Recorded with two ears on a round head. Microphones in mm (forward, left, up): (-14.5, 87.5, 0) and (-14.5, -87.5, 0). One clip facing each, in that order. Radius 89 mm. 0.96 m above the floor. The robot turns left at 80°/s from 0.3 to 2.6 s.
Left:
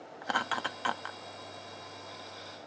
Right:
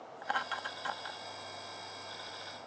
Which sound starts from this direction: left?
Laughter, at 0.2 s.